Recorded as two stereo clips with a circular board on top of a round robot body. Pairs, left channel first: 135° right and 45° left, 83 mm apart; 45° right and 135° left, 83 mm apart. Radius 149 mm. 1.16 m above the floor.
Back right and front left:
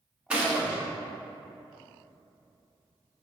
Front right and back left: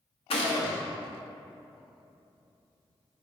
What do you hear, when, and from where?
0.3 s a gunshot: 35° right, 0.9 m